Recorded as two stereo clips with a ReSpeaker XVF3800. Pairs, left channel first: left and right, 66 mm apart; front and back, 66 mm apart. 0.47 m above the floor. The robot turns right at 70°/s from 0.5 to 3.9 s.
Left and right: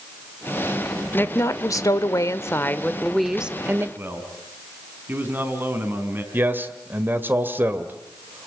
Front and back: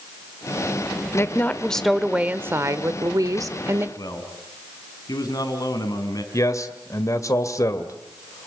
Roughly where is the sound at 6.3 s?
Ahead right.